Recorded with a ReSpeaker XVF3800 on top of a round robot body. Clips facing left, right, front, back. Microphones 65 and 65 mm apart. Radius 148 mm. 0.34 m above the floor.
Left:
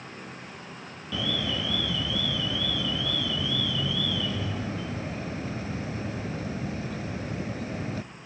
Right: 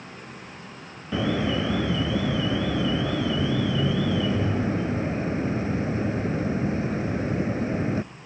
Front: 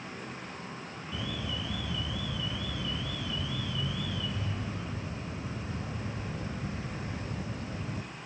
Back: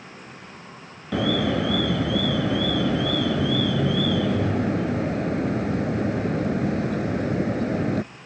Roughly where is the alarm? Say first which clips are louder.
Right 6 dB, back 16 dB; behind right.